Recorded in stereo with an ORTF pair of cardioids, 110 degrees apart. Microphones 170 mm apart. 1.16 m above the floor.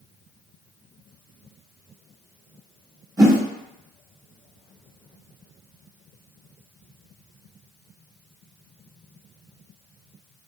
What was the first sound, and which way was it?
A whoosh, 25° right.